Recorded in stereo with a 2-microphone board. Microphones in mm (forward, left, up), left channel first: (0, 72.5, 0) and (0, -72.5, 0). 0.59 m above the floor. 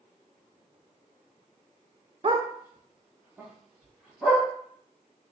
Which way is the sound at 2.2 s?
40° right (ahead or behind).